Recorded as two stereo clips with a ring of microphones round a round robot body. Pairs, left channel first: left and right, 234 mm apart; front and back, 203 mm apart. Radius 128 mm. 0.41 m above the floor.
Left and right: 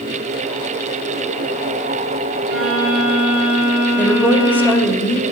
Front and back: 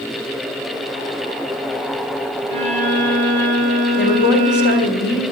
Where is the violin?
55° right, 9 m.